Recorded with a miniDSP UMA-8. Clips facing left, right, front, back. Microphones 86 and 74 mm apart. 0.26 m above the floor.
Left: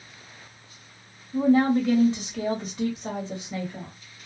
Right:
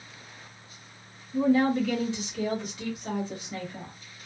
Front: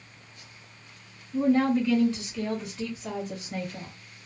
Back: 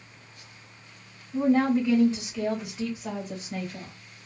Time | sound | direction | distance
1.3 | a woman speaking | 130° left | 1.9 m